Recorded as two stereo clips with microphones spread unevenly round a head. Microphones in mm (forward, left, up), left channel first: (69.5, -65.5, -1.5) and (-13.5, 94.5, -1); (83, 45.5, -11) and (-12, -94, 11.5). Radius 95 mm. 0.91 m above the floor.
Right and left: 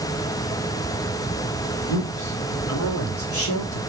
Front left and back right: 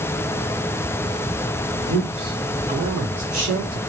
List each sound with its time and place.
1.9 s a man speaking: 70° right, 3 m; by 3.8 s 80° right, 1.9 m